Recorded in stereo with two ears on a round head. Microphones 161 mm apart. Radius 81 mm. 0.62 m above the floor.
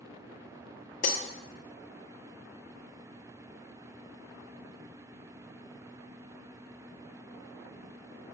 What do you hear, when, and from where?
1.0 s breaking glass: 50° left (ahead or behind), 0.9 m